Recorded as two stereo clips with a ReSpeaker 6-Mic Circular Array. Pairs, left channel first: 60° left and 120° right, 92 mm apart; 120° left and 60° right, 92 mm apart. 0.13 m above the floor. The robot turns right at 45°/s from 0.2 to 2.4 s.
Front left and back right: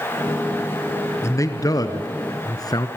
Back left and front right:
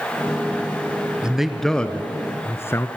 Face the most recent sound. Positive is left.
turn(degrees=70)